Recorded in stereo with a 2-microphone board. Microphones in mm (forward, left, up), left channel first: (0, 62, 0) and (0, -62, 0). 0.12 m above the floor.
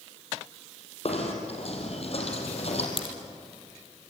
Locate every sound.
1.1 s knocking: 55° left (ahead or behind), 4 m
3.0 s a crack: 50° left (ahead or behind), 3.5 m